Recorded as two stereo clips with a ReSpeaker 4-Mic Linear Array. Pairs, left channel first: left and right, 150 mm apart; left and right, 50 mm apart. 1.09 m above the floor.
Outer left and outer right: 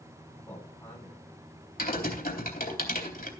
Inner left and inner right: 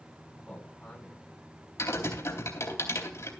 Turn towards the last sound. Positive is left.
turn(degrees=75)  # may be behind; listen again after turning